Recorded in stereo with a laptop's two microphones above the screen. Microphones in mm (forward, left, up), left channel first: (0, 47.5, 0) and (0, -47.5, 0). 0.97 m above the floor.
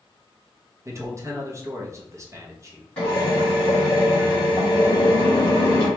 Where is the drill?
20° left (ahead or behind), 1.8 m.